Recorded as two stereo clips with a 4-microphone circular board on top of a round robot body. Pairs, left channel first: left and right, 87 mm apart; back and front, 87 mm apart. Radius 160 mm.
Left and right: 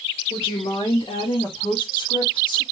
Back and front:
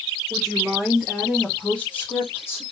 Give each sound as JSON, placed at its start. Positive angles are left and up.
{"t": 0.3, "sound": "a woman speaking", "azimuth_deg": 75, "distance_m": 2.5}